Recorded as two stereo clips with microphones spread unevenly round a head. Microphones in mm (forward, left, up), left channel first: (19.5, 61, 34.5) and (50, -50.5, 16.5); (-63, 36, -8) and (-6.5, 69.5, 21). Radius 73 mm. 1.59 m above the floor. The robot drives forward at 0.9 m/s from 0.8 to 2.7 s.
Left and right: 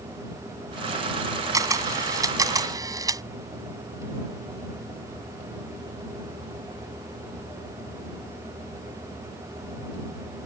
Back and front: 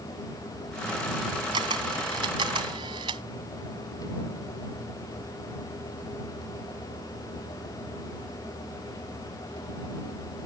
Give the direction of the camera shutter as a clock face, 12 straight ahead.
12 o'clock.